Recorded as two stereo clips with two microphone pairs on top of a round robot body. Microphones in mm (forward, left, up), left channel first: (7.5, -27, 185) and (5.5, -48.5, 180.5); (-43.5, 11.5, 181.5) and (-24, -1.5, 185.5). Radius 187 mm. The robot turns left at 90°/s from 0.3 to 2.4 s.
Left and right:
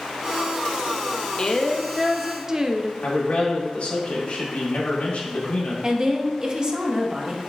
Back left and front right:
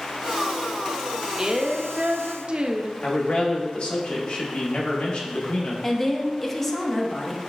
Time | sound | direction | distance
1.4 | a woman speaking | 30° left | 0.6 m
3.0 | a man speaking | 115° left | 1.4 m
5.8 | a woman speaking | 140° right | 1.0 m